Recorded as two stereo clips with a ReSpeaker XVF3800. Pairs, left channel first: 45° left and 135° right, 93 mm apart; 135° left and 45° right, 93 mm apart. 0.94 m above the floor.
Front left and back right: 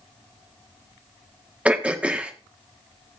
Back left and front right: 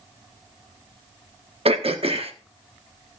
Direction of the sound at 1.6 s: 55° right.